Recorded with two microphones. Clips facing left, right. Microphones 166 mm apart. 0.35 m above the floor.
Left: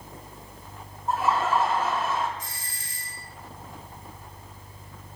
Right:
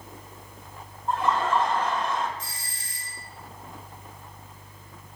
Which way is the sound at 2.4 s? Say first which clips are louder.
Even; 30° right (ahead or behind).